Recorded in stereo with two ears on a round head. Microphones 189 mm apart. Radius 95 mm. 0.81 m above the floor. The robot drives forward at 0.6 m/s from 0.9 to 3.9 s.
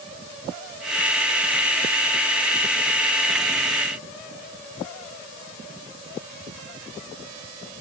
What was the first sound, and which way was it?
Only background noise.